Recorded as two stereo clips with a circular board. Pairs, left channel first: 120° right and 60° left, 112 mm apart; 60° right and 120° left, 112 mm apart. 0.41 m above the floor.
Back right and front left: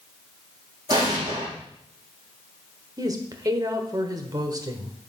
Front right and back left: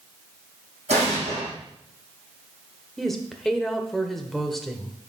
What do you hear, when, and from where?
0.9 s an explosion: 110° left, 5.5 m
3.0 s a woman speaking: 25° left, 1.1 m